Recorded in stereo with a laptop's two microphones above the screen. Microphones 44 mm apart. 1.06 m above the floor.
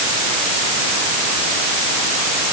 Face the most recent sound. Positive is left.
No sound to turn to.